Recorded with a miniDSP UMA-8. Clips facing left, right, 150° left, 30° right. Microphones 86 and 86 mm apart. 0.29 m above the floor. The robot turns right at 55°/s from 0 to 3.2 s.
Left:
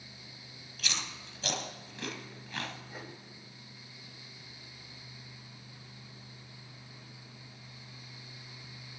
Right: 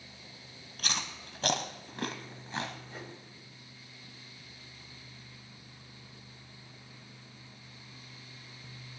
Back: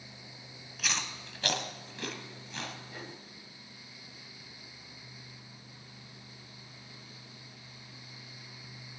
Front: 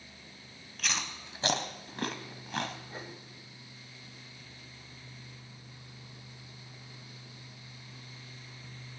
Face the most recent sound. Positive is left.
turn(degrees=25)